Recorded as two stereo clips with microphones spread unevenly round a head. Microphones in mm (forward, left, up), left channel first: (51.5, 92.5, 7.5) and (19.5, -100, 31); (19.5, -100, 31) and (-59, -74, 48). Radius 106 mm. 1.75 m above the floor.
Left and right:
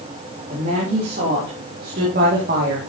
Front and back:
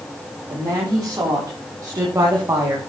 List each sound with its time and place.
0.5 s a woman speaking: 150° right, 4 m; by 2.8 s 145° right, 2 m